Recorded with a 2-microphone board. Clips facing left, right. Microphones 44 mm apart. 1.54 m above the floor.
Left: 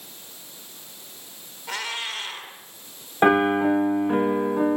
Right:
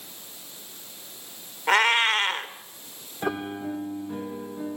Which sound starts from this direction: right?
A cat meowing, at 1.7 s.